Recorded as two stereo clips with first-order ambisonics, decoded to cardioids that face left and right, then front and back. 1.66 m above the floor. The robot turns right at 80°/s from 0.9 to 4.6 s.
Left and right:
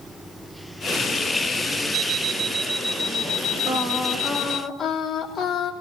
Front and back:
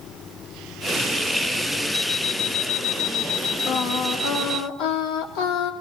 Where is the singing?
45° right, 3 m; by 5.7 s 30° left, 3 m.